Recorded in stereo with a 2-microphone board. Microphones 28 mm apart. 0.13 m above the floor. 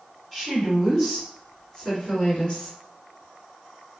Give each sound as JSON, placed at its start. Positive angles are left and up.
{"t": 0.3, "sound": "a woman speaking", "side_deg": 5, "distance_m": 1.9}